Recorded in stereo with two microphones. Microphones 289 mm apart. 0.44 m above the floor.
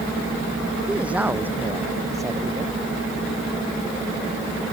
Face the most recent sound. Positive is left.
turn(degrees=-15)  # may be behind; listen again after turning